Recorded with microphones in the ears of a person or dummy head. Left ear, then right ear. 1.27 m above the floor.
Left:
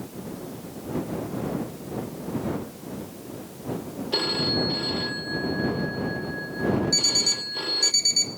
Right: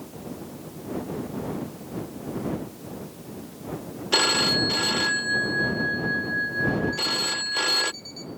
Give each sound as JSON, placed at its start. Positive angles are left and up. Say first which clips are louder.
{"t": 4.1, "sound": "a phone ringing", "louder": "right 4 dB", "side_deg": -40}
{"t": 6.9, "sound": "an alarm clock", "louder": "left 3 dB", "side_deg": 60}